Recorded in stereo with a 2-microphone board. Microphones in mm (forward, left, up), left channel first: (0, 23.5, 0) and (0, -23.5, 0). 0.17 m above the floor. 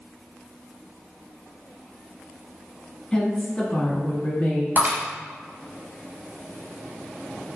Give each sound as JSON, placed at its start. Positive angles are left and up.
{"t": 3.1, "sound": "a woman speaking", "side_deg": 15, "distance_m": 1.4}
{"t": 4.8, "sound": "breaking glass", "side_deg": -45, "distance_m": 1.6}